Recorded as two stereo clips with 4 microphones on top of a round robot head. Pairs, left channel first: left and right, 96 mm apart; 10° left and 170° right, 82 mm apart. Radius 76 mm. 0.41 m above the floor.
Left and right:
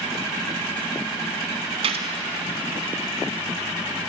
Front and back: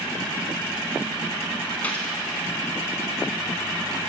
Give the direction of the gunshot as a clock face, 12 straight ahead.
2 o'clock.